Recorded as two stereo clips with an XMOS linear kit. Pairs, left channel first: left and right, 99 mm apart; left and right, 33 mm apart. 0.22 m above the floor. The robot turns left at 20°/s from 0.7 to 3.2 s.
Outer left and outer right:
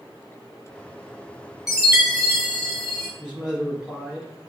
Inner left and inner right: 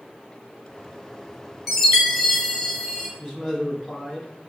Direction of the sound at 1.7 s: 5° right (ahead or behind).